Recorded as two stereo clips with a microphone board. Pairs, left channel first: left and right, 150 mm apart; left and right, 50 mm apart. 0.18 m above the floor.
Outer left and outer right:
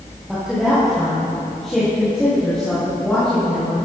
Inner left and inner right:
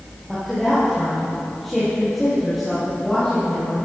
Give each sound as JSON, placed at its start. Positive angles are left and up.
{"t": 0.3, "sound": "a woman speaking", "side_deg": -5, "distance_m": 5.0}